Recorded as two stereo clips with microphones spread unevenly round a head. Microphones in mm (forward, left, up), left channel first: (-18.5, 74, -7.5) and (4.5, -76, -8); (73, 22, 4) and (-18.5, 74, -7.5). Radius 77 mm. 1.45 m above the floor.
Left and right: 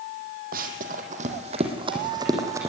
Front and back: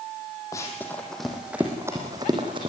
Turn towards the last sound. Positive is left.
turn(degrees=-155)